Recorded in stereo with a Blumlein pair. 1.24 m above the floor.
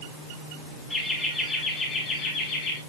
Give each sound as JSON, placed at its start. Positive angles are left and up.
{"t": 0.9, "sound": "laughter", "azimuth_deg": 5, "distance_m": 3.0}